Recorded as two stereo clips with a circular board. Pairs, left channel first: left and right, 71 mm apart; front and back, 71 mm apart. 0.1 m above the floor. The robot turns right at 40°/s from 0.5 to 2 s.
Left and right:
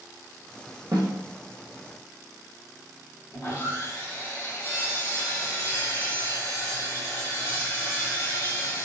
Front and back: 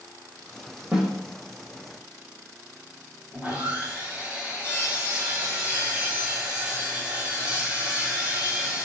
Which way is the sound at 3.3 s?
110° left.